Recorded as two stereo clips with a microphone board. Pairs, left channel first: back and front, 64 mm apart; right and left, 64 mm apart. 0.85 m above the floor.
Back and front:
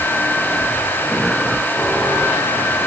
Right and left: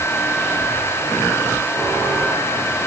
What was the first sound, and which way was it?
Only background noise.